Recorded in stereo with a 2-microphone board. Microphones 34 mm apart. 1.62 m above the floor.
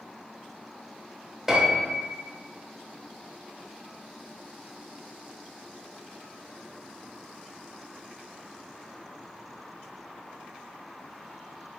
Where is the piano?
10° right (ahead or behind), 0.7 m.